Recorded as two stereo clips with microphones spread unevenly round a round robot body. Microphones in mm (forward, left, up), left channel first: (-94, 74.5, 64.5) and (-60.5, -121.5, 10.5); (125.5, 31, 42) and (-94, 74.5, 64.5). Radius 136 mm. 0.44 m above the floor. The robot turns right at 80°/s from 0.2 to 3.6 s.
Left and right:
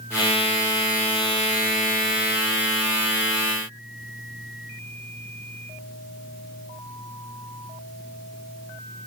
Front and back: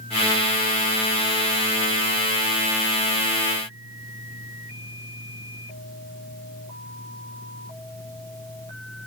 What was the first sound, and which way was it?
Only background noise.